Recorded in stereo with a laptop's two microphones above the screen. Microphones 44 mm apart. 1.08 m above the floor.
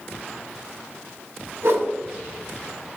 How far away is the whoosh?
About 0.6 m.